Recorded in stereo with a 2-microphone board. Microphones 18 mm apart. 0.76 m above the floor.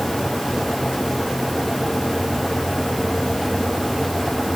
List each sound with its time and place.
Only background noise.